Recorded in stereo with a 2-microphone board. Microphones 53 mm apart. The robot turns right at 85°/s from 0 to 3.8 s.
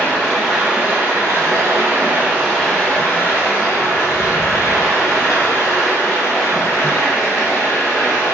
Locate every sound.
0.0 s running water: 140° left, 1.4 m; by 8.3 s 105° left, 1.4 m